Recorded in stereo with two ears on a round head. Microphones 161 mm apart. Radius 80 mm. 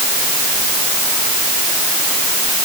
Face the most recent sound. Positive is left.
No sound to turn to.